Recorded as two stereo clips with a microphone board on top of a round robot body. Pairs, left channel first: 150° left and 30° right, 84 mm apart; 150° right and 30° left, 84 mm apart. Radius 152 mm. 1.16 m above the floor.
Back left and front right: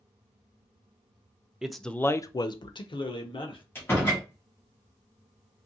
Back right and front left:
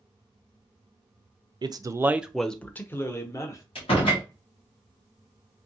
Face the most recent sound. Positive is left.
turn(degrees=-145)